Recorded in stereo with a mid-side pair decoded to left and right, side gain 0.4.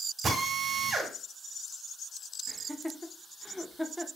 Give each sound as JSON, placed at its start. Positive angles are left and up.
{"t": 0.2, "sound": "a drill", "azimuth_deg": -55, "distance_m": 1.9}
{"t": 2.5, "sound": "laughter", "azimuth_deg": -5, "distance_m": 0.7}